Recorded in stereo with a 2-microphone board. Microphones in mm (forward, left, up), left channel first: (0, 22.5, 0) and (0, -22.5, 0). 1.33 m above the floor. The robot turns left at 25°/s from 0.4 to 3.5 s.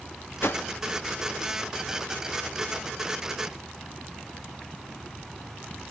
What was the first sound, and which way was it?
A whoosh, 55° left (ahead or behind).